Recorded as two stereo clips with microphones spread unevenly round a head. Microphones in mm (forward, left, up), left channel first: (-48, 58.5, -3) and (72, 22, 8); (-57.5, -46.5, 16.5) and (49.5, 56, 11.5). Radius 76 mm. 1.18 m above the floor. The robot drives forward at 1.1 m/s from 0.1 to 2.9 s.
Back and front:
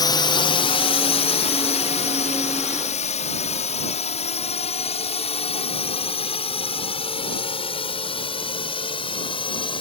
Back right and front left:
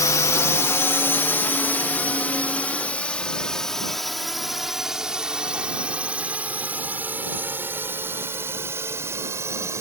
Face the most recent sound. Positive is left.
turn(degrees=115)